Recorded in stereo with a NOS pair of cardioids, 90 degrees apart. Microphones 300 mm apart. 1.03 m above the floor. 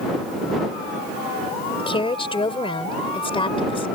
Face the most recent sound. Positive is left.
turn(degrees=15)